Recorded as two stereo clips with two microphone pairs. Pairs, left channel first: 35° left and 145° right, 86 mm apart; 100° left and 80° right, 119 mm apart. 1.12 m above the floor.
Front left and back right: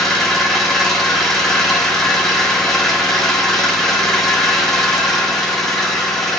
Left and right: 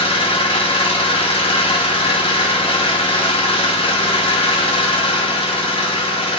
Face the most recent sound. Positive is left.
turn(degrees=125)